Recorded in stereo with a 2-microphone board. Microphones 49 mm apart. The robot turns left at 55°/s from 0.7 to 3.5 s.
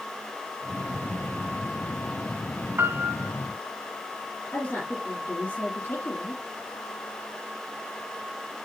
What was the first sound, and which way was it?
A piano, 50° right (ahead or behind).